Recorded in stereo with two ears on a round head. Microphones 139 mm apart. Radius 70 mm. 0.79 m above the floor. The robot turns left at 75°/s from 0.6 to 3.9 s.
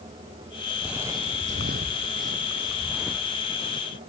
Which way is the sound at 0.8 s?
Centre (ahead or behind).